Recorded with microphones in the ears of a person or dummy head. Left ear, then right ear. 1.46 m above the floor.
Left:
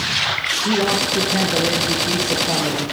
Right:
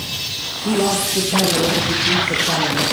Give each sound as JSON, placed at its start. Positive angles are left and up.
{"t": 0.7, "sound": "a man speaking", "side_deg": 0, "distance_m": 1.7}